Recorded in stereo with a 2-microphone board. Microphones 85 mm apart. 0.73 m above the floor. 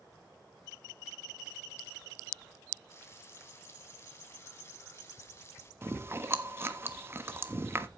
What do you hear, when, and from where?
2.9 s frying: 30° left (ahead or behind), 2 m
5.8 s chewing: 30° right (ahead or behind), 1.2 m